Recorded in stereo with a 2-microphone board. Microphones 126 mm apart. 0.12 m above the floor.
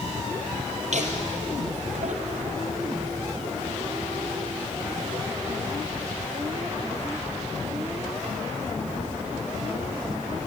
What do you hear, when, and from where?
0.9 s laughter: 65° right (ahead or behind), 3.5 m; by 8.0 s 55° right (ahead or behind), 7 m